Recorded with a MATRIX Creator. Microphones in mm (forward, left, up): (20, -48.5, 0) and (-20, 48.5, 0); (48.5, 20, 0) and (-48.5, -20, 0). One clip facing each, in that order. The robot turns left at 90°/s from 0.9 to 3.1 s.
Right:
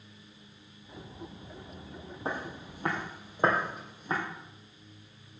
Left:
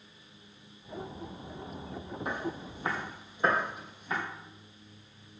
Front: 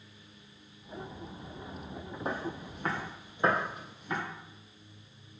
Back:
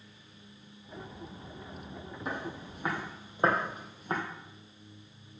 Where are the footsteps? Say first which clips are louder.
Even, front 2 dB; 15° right, 3 m; by 4.2 s 110° right, 3.5 m.